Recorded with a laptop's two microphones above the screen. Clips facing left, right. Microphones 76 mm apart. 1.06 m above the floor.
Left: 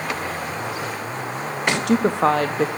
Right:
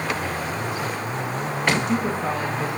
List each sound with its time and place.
1.7 s a woman speaking: 75° left (ahead or behind), 1.4 m